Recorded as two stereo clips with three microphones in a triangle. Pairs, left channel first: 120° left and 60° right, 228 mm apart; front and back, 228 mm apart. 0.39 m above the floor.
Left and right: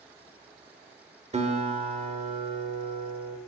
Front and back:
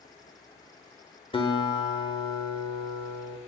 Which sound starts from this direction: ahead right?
A guitar, at 1.3 s.